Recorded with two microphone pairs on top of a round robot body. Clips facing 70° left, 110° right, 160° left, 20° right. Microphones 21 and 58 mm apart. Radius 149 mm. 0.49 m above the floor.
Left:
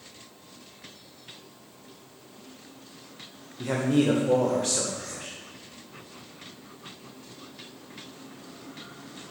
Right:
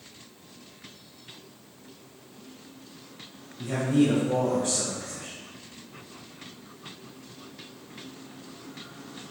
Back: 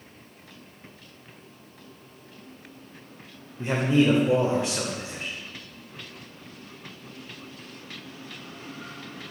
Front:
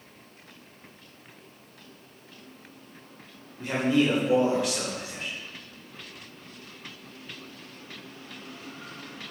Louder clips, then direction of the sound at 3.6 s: Even, back 2 dB; 95° left.